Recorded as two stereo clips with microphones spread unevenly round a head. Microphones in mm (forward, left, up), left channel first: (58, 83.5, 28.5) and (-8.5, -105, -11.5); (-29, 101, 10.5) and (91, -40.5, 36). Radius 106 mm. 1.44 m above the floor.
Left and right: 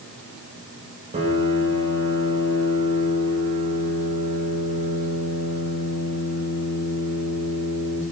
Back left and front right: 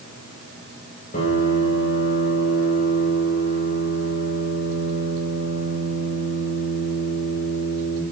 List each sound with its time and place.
1.1 s a piano: 175° right, 2 m